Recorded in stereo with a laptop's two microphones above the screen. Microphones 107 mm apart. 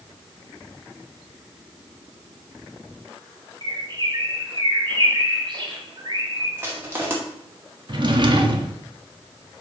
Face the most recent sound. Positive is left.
turn(degrees=-45)  # may be behind; listen again after turning